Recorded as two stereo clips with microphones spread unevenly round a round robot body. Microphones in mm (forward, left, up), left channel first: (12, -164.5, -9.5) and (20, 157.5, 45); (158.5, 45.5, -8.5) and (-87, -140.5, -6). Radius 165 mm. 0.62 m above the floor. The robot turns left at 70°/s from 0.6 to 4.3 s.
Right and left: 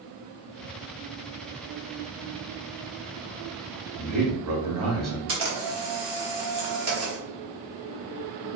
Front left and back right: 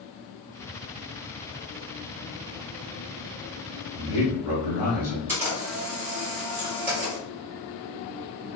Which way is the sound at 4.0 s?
75° left.